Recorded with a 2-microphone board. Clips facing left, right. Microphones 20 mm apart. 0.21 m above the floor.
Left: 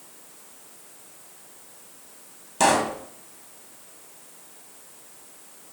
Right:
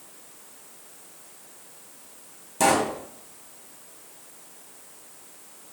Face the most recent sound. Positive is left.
turn(degrees=25)  # may be behind; listen again after turning